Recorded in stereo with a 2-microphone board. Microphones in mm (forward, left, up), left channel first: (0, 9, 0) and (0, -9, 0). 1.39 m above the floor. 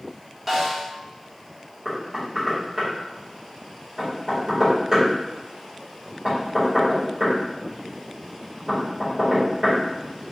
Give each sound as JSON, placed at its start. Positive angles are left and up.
{"t": 0.5, "sound": "a snare drum", "side_deg": -5, "distance_m": 1.0}
{"t": 1.9, "sound": "knocking", "side_deg": -30, "distance_m": 1.9}